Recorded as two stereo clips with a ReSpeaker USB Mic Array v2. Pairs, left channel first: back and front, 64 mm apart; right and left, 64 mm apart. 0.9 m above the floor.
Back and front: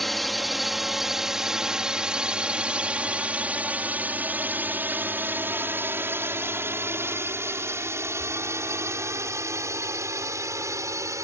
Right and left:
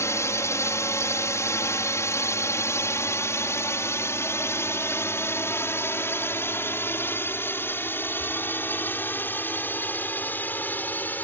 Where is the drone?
95° right; by 11.2 s 30° right.